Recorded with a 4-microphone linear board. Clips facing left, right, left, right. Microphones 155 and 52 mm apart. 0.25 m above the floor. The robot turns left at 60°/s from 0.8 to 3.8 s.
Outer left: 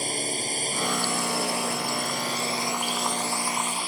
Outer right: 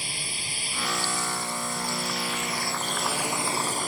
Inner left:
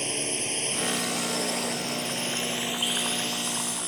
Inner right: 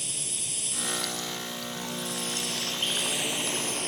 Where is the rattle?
No rattle in this recording.